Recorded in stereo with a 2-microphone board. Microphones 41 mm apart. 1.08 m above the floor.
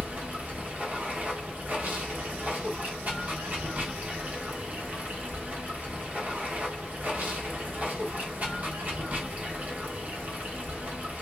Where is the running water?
40° right (ahead or behind), 1.0 m.